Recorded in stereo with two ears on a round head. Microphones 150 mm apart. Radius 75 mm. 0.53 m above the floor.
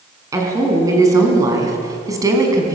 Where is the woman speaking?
20° right (ahead or behind), 6 m.